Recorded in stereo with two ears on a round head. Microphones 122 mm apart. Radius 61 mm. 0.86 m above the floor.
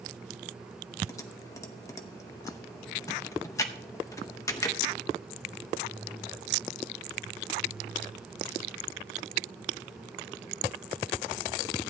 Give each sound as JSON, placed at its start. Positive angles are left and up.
{"t": 1.1, "sound": "typing on a keyboard", "side_deg": 25, "distance_m": 0.9}